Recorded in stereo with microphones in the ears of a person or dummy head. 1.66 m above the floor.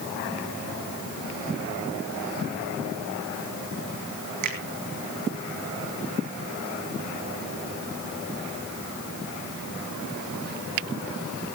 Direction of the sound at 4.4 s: 50° right (ahead or behind).